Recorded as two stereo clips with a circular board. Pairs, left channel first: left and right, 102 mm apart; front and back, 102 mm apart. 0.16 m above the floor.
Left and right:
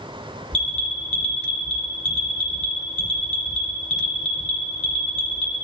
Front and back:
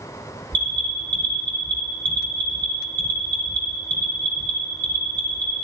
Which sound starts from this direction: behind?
An alarm, at 0.5 s.